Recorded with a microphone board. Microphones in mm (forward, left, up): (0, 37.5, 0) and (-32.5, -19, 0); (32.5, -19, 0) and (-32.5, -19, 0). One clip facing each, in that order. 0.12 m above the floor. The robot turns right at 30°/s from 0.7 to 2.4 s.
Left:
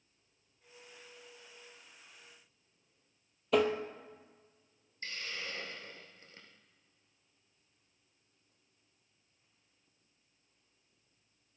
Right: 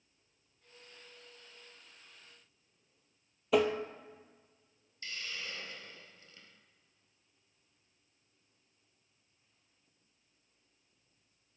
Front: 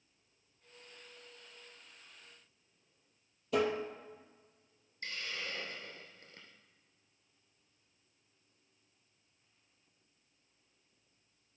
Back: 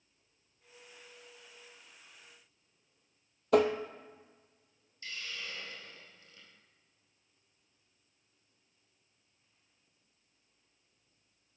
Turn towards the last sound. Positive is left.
turn(degrees=20)